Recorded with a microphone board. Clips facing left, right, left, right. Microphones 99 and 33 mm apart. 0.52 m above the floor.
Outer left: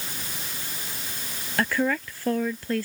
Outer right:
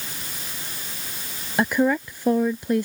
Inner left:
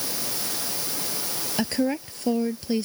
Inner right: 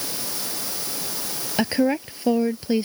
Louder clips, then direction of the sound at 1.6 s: Outer right 4 dB, inner right 4 dB; 20° right (ahead or behind).